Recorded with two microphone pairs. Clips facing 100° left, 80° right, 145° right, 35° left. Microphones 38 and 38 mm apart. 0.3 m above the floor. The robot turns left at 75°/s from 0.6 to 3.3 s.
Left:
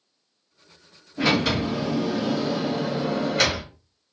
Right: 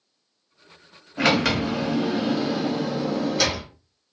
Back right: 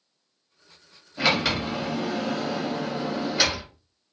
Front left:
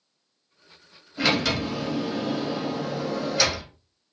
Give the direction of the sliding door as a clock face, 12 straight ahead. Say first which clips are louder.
Right 1 dB, even; 2 o'clock.